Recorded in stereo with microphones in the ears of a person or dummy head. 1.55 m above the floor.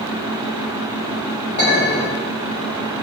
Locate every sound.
1.6 s a clink: 35° left (ahead or behind), 1.1 m